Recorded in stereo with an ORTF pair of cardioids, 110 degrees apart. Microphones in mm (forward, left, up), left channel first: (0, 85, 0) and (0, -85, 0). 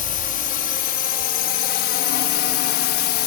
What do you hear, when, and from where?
0.0 s a drone: 55° left; by 3.3 s 75° left